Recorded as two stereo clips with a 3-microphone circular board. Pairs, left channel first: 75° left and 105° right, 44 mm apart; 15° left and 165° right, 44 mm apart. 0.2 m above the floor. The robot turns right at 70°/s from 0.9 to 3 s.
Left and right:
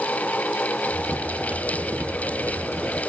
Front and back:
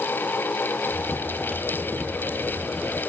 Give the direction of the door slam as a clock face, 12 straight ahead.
I don't hear a door slam.